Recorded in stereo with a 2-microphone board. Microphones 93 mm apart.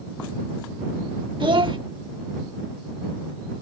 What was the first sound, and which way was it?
A child speaking, 60° right (ahead or behind).